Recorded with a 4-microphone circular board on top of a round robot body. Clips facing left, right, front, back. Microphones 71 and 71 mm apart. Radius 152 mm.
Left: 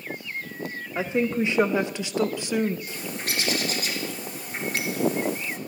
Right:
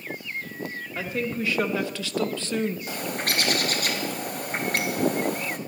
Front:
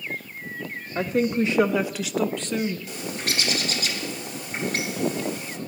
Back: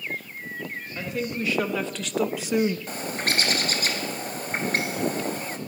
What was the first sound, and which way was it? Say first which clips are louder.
A woman speaking: left 5 dB, front 8 dB; 30° left.